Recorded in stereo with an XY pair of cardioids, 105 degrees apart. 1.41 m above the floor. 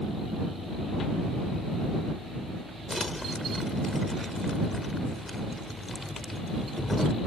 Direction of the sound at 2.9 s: 20° left.